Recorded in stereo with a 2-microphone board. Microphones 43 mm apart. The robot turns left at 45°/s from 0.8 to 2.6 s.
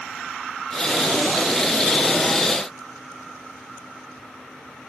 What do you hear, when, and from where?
Only background noise.